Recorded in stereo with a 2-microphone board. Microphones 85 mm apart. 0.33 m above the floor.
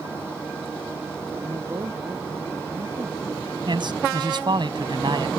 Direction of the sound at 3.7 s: 65° right (ahead or behind).